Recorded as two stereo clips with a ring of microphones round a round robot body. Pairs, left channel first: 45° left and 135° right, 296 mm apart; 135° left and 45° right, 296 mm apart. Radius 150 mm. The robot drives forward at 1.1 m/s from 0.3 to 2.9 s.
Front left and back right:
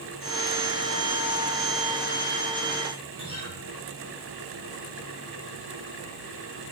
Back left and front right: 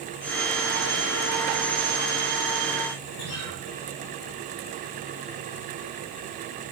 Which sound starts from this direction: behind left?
A guitar, at 3.2 s.